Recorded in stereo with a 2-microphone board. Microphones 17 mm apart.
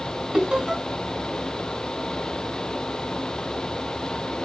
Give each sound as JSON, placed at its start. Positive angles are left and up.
{"t": 0.3, "sound": "laughter", "side_deg": -50, "distance_m": 4.0}